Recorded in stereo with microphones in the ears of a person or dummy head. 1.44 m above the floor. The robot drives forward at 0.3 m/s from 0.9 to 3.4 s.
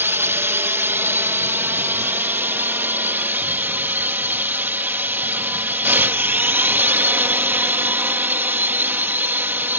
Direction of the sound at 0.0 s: 15° right (ahead or behind).